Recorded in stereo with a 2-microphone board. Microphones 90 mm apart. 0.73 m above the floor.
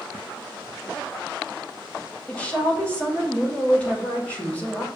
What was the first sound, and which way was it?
A woman speaking, 15° left (ahead or behind).